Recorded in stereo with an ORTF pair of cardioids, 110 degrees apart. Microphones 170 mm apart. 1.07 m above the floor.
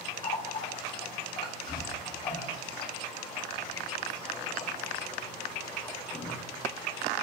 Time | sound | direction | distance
0.2 | a running tap | 30° left | 1.5 m